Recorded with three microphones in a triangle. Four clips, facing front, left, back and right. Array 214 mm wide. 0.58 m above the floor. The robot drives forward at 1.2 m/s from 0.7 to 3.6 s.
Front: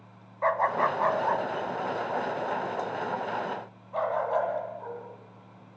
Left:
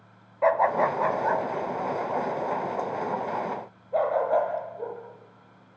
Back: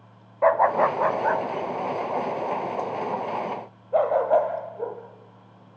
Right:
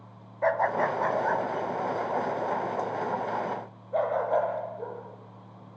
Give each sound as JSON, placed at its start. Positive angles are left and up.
{"t": 0.4, "sound": "a dog barking", "azimuth_deg": 170, "distance_m": 0.9}